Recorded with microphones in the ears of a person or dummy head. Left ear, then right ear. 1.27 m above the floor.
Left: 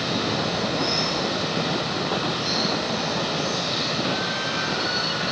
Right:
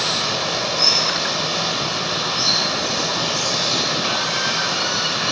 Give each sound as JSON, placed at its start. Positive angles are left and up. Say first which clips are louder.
{"t": 0.0, "sound": "running water", "louder": "right 4 dB", "side_deg": -85, "distance_m": 4.0}